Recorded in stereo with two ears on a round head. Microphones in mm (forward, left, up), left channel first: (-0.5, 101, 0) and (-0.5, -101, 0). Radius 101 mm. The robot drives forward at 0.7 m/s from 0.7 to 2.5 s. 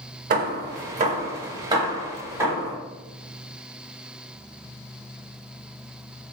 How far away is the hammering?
About 0.5 m.